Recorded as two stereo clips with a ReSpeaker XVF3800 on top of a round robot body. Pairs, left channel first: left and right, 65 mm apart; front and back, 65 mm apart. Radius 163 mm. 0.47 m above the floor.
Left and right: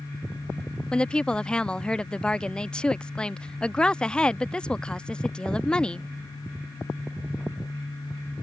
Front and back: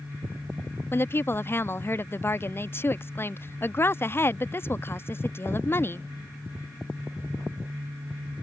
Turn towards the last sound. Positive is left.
turn(degrees=20)